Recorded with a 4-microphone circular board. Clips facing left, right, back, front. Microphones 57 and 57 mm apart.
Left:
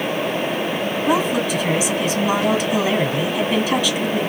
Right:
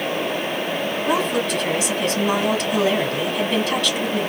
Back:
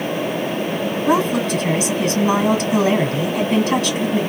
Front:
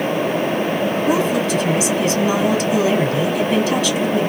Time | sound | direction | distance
1.1 | a woman speaking | 175° left | 1.5 m